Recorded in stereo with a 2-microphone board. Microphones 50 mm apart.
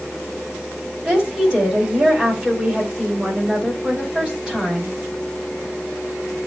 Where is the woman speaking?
10° right (ahead or behind), 5.5 m.